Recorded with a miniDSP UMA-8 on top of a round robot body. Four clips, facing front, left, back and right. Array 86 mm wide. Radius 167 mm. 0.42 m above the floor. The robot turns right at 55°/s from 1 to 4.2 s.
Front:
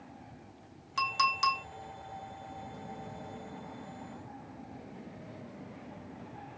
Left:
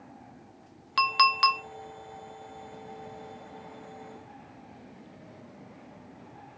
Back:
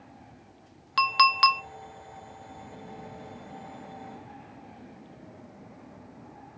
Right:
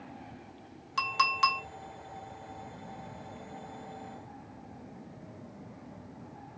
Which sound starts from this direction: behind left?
A clink, at 1.0 s.